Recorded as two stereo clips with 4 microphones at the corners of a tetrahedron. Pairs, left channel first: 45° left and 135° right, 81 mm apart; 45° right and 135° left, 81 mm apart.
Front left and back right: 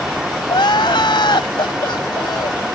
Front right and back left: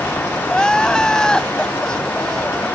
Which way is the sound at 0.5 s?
35° left.